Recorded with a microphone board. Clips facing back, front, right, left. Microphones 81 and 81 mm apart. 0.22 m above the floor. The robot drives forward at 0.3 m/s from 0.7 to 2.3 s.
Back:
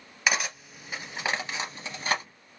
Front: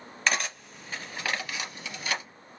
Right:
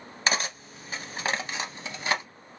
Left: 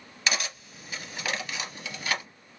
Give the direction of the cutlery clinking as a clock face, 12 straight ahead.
3 o'clock.